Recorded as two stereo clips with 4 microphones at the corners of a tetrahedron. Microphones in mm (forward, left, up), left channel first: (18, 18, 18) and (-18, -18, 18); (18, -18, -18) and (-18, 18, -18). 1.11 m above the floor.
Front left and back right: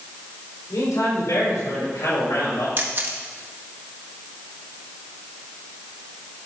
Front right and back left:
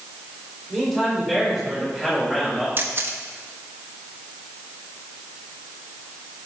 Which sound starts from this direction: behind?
A camera shutter, at 2.8 s.